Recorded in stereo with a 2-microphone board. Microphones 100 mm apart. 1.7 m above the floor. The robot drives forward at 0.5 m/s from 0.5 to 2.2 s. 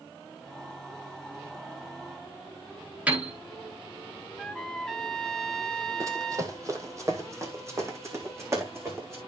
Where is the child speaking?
No child speaking in this recording.